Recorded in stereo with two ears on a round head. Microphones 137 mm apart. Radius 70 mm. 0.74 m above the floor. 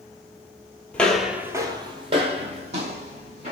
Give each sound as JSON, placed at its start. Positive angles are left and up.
{"t": 0.9, "sound": "footsteps", "side_deg": 10, "distance_m": 0.8}